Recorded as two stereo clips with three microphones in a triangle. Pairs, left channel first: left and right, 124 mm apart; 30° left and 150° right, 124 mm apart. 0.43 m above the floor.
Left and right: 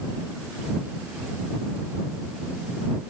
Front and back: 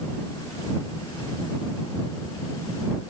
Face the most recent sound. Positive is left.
No sound to turn to.